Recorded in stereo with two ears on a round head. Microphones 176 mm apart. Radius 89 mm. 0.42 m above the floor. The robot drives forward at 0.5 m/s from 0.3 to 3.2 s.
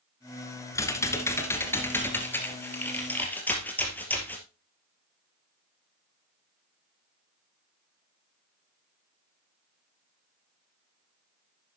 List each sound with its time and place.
0.8 s typing on a keyboard: 15° left (ahead or behind), 1.8 m; by 4.5 s 10° left (ahead or behind), 3 m